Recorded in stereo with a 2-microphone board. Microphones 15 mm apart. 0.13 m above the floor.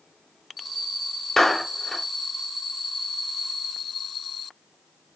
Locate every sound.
1.4 s a clap: 25° left (ahead or behind), 1.1 m